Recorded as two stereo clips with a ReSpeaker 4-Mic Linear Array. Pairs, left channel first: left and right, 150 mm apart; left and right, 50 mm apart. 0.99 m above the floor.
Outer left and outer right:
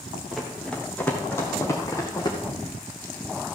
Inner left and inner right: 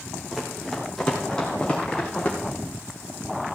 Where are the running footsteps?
Centre (ahead or behind), 2 m; by 2.4 s 30° left (ahead or behind), 3 m.